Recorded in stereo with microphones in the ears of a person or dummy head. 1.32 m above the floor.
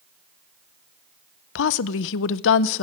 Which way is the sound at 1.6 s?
70° left (ahead or behind).